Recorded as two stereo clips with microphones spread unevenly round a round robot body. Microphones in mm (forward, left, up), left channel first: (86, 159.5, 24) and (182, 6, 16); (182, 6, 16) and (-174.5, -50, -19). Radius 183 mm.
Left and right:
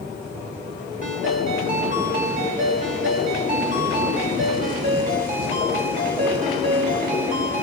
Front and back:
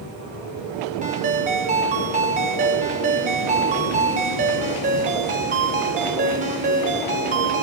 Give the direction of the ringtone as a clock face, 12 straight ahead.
4 o'clock.